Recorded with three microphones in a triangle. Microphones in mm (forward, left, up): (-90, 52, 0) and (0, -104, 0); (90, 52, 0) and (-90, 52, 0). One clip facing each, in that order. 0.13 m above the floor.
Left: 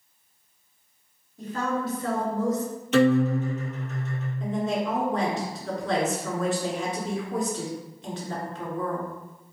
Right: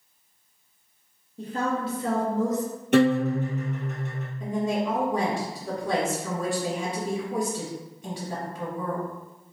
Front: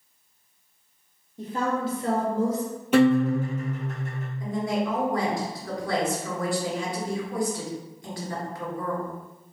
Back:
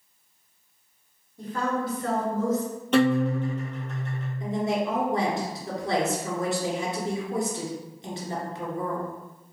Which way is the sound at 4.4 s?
130° right.